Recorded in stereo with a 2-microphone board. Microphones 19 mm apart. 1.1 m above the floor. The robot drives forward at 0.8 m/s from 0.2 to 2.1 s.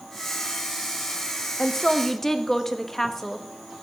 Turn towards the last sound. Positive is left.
turn(degrees=20)  # may be behind; listen again after turning